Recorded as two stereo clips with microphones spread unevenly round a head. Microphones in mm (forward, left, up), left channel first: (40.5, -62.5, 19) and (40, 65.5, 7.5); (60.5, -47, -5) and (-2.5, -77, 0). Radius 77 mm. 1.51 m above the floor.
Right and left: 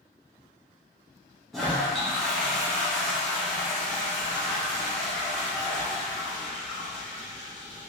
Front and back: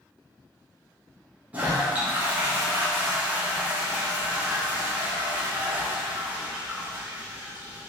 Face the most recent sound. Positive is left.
turn(degrees=-160)